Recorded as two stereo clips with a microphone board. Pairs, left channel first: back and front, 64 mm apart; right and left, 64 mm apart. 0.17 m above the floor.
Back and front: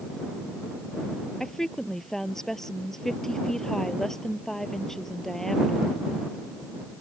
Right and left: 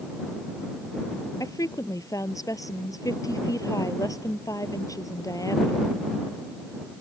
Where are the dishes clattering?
I don't hear dishes clattering.